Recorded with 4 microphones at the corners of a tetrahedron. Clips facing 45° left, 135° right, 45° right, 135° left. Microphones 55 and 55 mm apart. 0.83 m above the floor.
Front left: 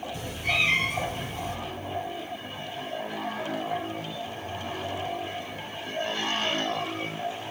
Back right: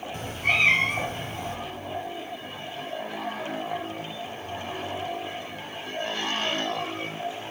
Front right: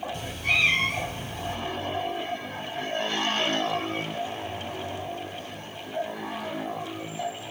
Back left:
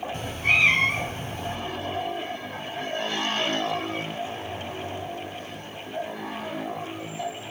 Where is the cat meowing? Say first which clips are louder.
Back right 4 dB, back left 4 dB; 175° right, 1.2 m.